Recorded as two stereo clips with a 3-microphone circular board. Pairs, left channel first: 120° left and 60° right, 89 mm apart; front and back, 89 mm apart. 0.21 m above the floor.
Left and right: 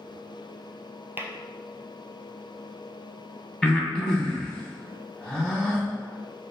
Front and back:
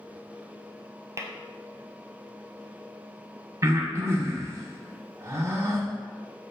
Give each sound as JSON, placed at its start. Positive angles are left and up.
{"t": 1.2, "sound": "tapping", "azimuth_deg": -125, "distance_m": 0.7}
{"t": 3.6, "sound": "breathing", "azimuth_deg": -165, "distance_m": 0.8}